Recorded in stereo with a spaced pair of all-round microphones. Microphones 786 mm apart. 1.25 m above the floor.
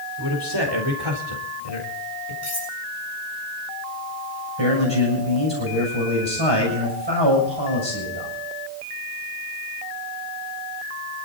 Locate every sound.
0.2 s a man speaking: 30° right (ahead or behind), 4.5 m; by 2.3 s 45° right (ahead or behind), 3.5 m
2.4 s cutlery clinking: 20° left (ahead or behind), 8.5 m
4.6 s a man speaking: 30° right (ahead or behind), 7 m